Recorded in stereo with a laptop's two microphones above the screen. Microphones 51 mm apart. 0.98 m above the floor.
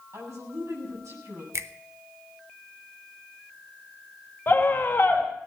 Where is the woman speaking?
75° right (ahead or behind), 7.5 m.